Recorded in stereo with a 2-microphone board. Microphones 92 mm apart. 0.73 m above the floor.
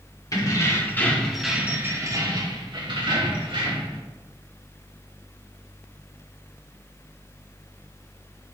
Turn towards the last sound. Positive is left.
turn(degrees=-75)  # may be behind; listen again after turning